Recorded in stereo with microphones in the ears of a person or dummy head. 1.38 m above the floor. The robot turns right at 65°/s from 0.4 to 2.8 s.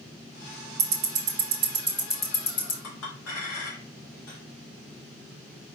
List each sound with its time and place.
0.8 s ticking: 60° right (ahead or behind), 0.9 m; by 2.7 s 30° left (ahead or behind), 0.9 m
2.8 s a clink: 80° left, 2 m